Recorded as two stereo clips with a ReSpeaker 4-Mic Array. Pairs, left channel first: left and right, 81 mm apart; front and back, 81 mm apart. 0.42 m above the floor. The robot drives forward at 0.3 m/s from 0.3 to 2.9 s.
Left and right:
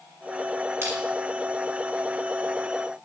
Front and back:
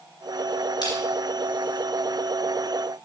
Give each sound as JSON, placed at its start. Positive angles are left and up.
{"t": 0.8, "sound": "crushing", "azimuth_deg": -30, "distance_m": 3.0}